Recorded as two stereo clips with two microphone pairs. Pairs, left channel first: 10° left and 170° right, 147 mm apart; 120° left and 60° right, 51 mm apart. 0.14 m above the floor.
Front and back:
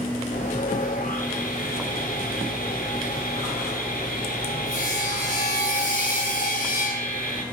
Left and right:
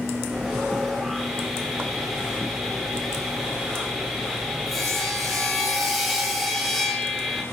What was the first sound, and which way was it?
Sawing, 30° left.